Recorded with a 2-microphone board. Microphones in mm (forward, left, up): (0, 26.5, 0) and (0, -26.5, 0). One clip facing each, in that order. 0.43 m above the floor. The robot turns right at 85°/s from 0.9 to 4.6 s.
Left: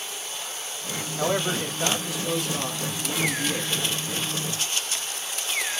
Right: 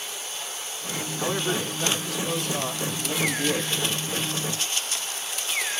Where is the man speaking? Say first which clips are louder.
Left 2 dB; 80° left, 1.5 m; by 3.8 s 60° right, 1.5 m.